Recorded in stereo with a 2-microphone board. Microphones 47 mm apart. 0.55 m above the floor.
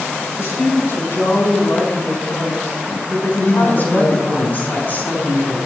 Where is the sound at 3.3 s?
45° left (ahead or behind), 5.5 m.